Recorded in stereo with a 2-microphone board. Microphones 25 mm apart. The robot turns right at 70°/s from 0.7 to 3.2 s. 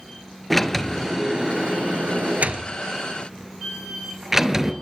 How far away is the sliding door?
About 2 m.